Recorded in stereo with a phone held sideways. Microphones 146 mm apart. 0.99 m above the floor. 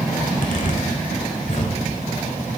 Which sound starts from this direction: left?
A zipper, at 0.2 s.